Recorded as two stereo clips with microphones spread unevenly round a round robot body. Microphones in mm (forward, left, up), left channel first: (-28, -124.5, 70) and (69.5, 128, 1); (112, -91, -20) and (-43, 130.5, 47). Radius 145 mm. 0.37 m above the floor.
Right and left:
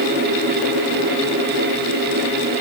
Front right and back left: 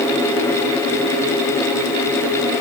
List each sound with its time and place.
Only background noise.